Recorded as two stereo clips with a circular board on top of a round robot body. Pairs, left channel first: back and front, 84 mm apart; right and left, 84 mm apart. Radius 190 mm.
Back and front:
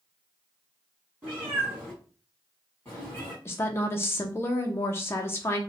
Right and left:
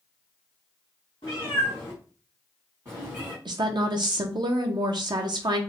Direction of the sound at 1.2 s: 80° right.